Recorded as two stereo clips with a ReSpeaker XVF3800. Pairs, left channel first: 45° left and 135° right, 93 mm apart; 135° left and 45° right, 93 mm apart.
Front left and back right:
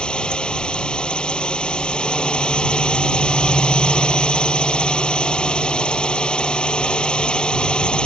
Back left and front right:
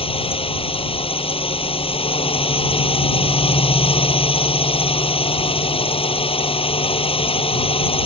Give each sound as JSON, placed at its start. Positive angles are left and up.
{"t": 0.0, "sound": "a drone", "azimuth_deg": 125}